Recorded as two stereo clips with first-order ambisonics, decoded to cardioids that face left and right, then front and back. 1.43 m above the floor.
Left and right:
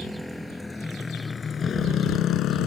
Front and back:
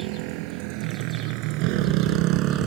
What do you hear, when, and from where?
0.0 s a motorcycle: straight behind; by 2.7 s 130° left